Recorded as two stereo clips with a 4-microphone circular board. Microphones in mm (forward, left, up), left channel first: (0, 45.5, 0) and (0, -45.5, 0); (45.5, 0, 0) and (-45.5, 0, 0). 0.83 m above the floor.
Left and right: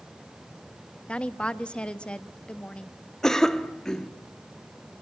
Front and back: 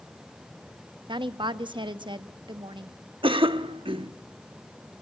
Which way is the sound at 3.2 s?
175° left.